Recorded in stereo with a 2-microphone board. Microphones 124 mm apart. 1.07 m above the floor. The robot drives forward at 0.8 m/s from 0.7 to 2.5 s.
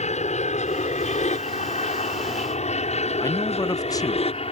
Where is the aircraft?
70° left (ahead or behind); by 4.5 s 55° left (ahead or behind).